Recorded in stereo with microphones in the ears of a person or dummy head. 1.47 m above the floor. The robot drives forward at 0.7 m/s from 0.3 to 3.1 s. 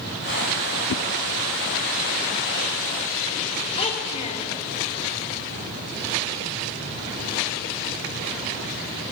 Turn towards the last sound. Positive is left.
turn(degrees=35)  # may be behind; listen again after turning